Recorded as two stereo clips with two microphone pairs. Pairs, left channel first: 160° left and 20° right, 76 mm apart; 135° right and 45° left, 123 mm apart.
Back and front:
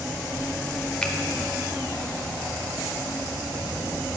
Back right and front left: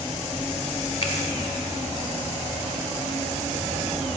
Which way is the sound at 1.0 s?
125° right.